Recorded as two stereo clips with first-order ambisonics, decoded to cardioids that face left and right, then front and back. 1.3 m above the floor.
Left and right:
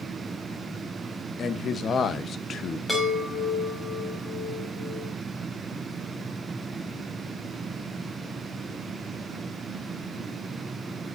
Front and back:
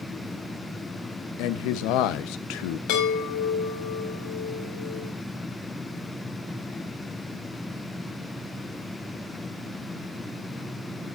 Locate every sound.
1.4 s a man speaking: 25° left, 1.1 m
2.9 s a chime: straight ahead, 6.5 m